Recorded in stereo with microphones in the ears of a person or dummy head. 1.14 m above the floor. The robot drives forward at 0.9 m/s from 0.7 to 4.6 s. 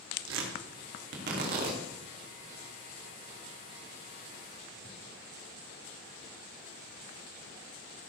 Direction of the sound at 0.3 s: 70° right (ahead or behind).